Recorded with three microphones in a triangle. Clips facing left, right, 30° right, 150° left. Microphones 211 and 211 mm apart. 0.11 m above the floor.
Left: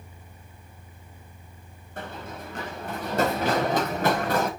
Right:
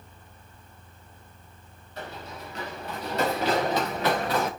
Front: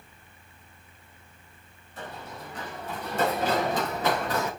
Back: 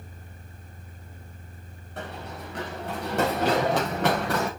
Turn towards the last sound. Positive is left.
turn(degrees=130)